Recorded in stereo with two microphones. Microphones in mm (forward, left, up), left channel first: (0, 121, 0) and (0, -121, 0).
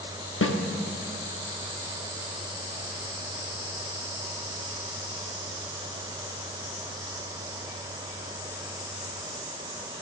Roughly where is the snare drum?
Left.